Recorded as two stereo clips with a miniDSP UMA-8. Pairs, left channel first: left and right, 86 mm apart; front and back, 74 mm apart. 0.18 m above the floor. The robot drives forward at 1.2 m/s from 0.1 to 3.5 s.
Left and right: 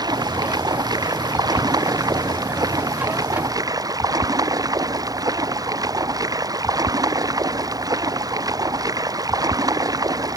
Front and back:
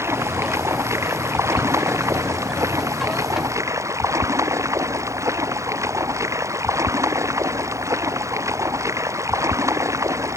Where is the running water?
125° right; by 10.4 s 135° right.